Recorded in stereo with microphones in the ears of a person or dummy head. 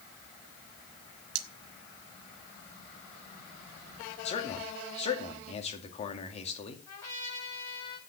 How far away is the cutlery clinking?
About 1.2 m.